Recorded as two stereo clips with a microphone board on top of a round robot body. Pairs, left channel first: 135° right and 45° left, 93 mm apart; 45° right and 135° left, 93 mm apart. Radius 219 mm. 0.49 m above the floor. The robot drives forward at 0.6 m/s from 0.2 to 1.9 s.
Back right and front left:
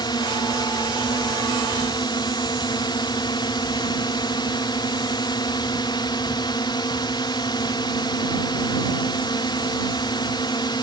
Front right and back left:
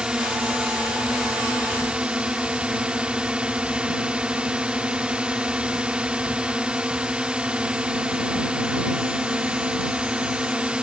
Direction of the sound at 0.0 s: 145° right.